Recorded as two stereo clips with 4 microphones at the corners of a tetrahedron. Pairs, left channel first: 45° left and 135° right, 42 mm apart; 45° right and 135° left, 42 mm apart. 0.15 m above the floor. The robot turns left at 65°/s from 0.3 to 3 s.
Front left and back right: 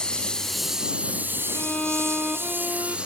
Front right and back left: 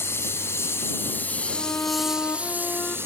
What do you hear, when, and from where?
0.0 s a lawn mower: 30° right; by 3.1 s 155° left
1.5 s a violin: 5° right; by 3.0 s 100° right